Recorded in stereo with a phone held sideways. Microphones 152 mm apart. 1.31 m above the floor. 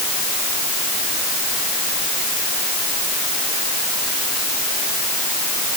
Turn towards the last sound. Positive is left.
No sound to turn to.